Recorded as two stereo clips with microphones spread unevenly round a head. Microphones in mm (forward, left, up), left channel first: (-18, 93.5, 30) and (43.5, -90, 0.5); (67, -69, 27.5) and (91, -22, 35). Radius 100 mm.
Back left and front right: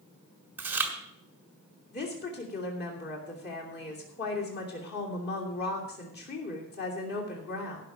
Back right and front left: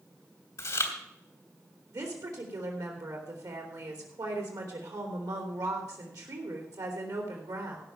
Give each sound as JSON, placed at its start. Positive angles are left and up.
{"t": 0.6, "sound": "chewing", "azimuth_deg": -155, "distance_m": 1.7}
{"t": 1.9, "sound": "a woman speaking", "azimuth_deg": 70, "distance_m": 3.0}